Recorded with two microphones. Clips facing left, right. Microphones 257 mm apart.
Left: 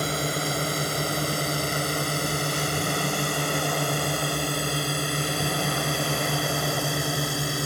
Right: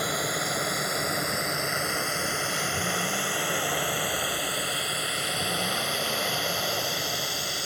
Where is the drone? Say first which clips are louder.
Left 3 dB; 30° left (ahead or behind); by 7.7 s 65° left (ahead or behind).